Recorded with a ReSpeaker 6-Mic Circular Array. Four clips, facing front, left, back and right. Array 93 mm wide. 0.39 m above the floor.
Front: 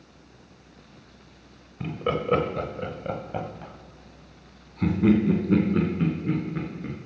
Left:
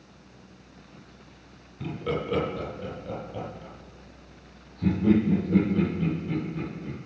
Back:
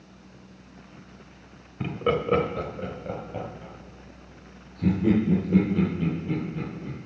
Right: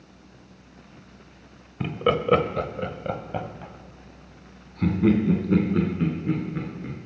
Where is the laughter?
105° right, 1.2 m; by 7.0 s 35° right, 4.5 m.